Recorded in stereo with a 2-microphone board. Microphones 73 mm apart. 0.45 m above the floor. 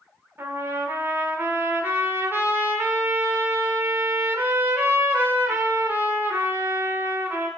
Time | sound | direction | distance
0.4 | a trumpet | 30° right (ahead or behind) | 1.5 m